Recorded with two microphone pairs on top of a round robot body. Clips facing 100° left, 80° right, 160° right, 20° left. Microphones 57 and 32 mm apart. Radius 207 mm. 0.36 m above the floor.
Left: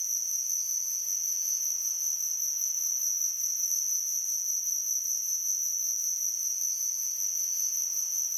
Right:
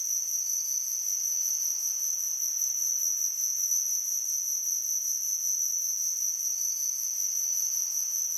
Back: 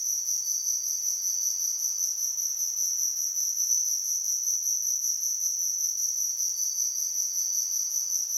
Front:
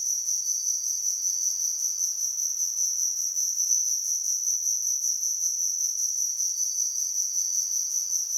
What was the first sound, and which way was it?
An insect, 80° right.